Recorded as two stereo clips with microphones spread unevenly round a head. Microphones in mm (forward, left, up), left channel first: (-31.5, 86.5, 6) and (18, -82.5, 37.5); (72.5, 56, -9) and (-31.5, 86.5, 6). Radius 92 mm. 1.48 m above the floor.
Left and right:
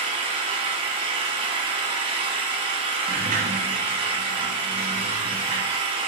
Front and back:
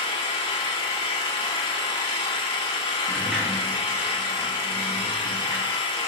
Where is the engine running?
45° right, 1.2 m.